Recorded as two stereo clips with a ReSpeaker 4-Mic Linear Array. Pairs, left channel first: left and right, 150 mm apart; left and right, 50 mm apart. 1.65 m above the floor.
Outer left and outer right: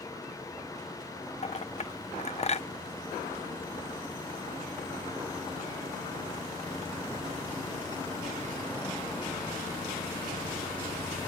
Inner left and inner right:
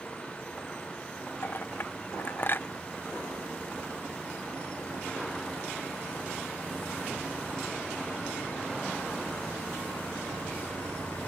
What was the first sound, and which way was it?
A clink, 45° left (ahead or behind).